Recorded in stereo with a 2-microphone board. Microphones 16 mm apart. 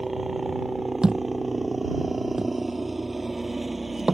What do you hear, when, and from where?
0.0 s a helicopter: 10° right (ahead or behind)
1.0 s a thud: 60° right (ahead or behind)